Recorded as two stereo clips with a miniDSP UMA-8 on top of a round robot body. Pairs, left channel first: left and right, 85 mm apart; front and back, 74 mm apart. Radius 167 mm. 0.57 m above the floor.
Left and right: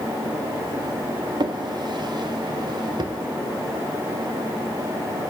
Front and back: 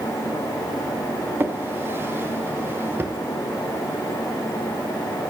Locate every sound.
1.4 s a drawer: 120° right, 1.0 m